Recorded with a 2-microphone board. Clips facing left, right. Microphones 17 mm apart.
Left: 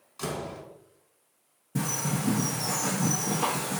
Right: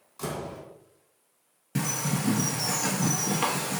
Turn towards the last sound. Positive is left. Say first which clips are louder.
# right 1 dB
turn(degrees=-60)  # may be behind; listen again after turning